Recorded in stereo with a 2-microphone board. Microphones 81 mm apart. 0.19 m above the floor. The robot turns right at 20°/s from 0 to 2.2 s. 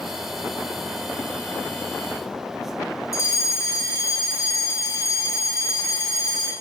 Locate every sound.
3.1 s a fire alarm: 35° left (ahead or behind), 3 m